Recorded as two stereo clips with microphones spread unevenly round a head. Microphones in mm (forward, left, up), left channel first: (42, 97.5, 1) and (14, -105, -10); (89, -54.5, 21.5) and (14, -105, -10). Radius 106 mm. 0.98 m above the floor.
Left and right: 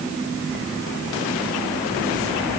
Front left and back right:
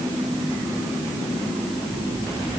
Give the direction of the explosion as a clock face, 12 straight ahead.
I don't hear an explosion.